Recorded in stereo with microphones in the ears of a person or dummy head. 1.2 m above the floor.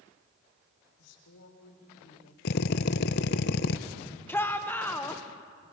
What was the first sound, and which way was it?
A woman speaking, 75° left (ahead or behind).